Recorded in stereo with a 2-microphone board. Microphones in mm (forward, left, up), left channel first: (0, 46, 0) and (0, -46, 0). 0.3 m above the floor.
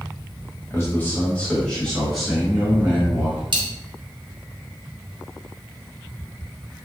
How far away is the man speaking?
About 1.3 m.